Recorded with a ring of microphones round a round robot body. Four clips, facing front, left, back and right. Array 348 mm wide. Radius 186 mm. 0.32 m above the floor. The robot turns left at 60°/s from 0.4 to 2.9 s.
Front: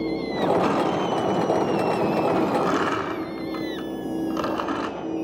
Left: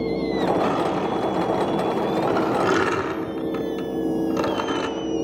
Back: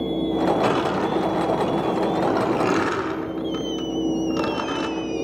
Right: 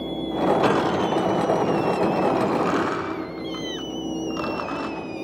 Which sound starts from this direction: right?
Crushing, at 0.6 s.